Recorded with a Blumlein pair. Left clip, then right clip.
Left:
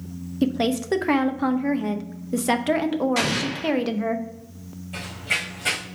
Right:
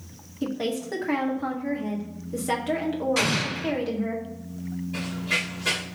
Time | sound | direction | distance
0.4 | a woman speaking | 25° left | 0.7 m
3.2 | an explosion | 5° left | 1.4 m
4.9 | running footsteps | 50° left | 3.5 m